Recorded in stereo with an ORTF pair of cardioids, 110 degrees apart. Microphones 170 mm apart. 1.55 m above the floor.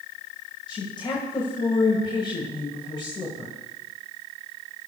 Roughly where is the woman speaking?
Ahead left.